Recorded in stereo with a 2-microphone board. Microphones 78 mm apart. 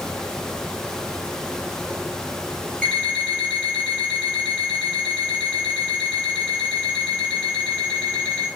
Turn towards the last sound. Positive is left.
turn(degrees=15)  # may be behind; listen again after turning